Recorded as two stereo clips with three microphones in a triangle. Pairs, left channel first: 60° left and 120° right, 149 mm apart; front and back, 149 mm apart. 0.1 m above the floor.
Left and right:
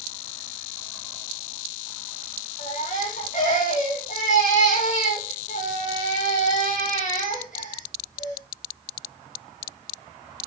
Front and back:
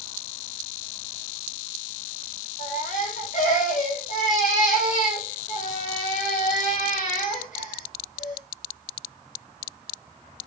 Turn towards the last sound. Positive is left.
turn(degrees=30)